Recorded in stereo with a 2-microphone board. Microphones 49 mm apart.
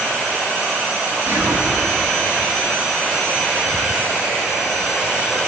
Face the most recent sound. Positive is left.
turn(degrees=-40)  # may be behind; listen again after turning